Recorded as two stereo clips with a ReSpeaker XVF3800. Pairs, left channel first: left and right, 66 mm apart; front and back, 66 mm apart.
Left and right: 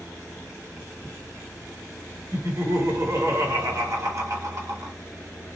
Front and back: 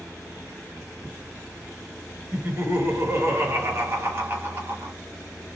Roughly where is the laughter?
Behind right.